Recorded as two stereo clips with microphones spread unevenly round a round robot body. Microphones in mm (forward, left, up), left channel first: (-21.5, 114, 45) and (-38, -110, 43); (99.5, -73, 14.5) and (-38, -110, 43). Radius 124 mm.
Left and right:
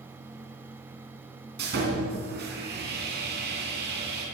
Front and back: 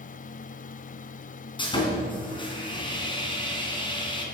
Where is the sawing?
45° right, 3 m.